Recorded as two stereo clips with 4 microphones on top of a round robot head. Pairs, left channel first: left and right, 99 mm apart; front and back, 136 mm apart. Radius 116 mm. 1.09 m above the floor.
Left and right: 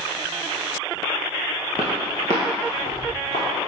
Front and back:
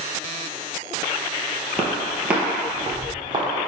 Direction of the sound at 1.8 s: 70° left.